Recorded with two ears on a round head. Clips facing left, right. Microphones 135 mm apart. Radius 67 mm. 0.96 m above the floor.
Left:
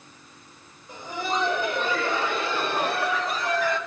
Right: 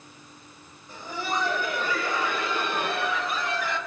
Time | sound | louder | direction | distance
0.9 | laughter | left 2 dB | 15° left (ahead or behind) | 4 m